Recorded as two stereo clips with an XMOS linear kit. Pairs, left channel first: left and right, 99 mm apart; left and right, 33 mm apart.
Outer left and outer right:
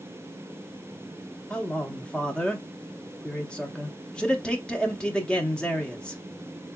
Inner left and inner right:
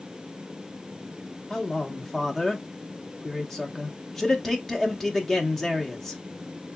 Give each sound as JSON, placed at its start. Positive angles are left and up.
{"t": 1.5, "sound": "a man speaking", "side_deg": 10, "distance_m": 0.8}